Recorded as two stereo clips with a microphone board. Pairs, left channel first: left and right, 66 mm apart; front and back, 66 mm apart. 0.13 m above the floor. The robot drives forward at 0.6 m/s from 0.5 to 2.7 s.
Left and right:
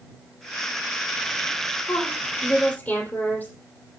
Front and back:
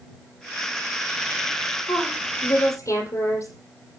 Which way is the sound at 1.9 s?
20° left.